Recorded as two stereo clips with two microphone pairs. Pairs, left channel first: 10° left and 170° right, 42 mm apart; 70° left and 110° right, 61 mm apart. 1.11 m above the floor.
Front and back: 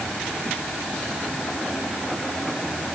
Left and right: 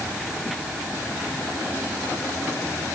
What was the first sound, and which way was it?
Only background noise.